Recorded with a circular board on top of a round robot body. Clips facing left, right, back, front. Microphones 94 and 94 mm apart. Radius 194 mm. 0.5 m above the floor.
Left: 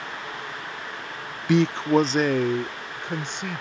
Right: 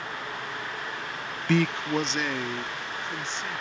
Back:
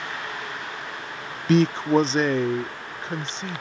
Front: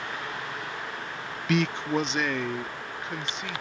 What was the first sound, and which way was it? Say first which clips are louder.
A man speaking: left 6 dB, back 7 dB; 155° left.